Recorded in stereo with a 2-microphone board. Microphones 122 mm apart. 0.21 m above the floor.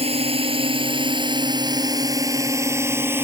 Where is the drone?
55° right (ahead or behind); by 3.2 s 15° right (ahead or behind).